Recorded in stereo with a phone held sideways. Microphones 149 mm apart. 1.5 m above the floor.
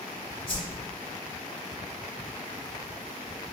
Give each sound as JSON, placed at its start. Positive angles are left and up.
{"t": 0.5, "sound": "a whoosh", "side_deg": 35, "distance_m": 0.9}